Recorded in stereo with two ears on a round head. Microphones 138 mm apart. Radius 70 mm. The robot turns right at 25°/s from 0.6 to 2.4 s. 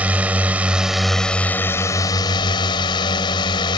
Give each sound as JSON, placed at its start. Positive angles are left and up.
{"t": 0.0, "sound": "a drone", "azimuth_deg": -10}